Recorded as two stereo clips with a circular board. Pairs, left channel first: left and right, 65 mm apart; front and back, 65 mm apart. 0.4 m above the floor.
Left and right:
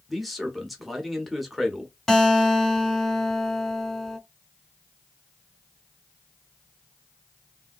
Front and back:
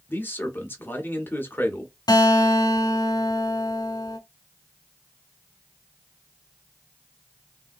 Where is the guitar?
5° left, 0.9 m.